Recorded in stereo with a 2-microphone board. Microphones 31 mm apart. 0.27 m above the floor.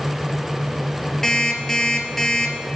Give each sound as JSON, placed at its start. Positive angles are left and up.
{"t": 1.2, "sound": "an alarm clock", "side_deg": 10, "distance_m": 2.0}